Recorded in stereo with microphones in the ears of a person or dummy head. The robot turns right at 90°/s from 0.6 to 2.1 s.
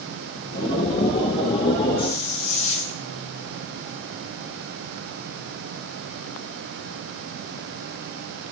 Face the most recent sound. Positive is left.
turn(degrees=40)  # may be behind; listen again after turning